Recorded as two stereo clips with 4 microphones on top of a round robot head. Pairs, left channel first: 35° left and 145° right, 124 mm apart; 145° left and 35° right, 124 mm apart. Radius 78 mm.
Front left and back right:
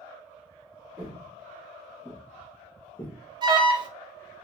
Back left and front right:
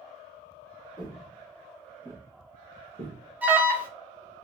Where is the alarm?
110° right, 0.6 m.